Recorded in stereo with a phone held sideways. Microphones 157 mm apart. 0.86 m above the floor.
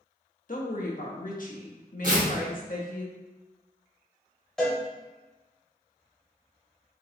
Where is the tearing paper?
60° right (ahead or behind), 1.2 m.